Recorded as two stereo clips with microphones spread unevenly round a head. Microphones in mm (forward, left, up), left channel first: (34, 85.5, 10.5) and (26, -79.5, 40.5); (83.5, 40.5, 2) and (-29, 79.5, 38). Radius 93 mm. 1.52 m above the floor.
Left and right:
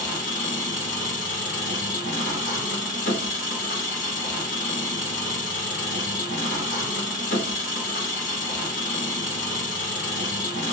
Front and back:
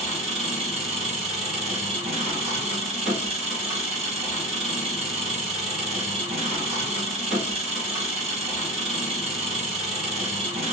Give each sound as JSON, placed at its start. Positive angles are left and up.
{"t": 0.0, "sound": "an engine running", "azimuth_deg": 140, "distance_m": 2.0}